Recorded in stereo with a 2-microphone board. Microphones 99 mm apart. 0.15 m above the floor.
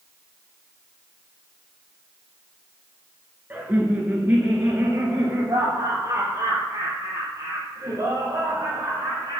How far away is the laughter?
About 2.5 m.